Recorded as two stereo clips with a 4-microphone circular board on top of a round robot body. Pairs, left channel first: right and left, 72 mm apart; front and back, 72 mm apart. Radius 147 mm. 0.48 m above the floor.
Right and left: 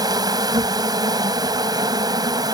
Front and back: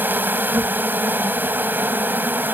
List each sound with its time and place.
0.0 s an insect: 115° left